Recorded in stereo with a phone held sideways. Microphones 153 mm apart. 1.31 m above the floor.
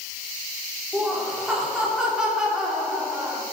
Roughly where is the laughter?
Centre.